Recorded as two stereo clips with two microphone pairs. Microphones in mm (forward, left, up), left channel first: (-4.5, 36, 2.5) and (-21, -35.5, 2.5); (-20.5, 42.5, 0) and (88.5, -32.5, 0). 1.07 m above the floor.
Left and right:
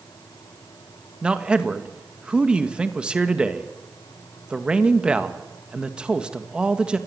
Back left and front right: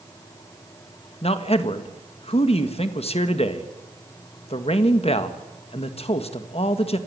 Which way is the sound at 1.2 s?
Straight behind.